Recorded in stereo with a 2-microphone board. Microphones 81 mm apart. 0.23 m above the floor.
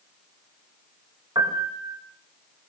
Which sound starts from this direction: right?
A piano, at 1.4 s.